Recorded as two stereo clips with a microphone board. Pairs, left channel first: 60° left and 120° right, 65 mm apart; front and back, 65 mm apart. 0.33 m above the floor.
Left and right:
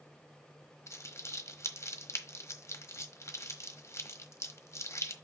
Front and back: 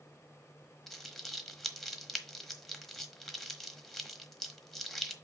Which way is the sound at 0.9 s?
85° left.